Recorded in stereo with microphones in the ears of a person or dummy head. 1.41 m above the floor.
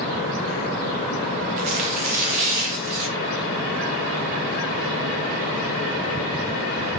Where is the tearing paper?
40° right (ahead or behind), 0.5 m.